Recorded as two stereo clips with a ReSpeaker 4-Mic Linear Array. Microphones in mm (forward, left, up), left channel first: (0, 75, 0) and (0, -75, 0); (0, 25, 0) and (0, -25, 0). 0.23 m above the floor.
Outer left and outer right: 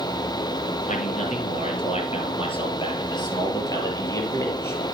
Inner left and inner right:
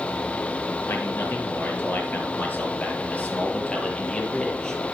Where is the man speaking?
55° left (ahead or behind), 4 m; by 4.8 s 15° left (ahead or behind), 4.5 m.